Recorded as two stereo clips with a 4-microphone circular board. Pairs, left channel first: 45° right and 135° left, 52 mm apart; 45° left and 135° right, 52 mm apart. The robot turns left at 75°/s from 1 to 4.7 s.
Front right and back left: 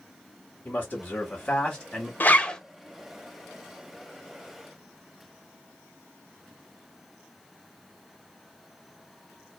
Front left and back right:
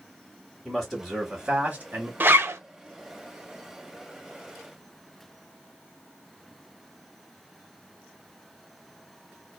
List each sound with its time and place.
0.7 s a man speaking: 60° right, 1.2 m; by 2.1 s 140° right, 1.2 m
2.2 s a zipper: 90° right, 0.5 m; by 2.6 s 120° right, 0.5 m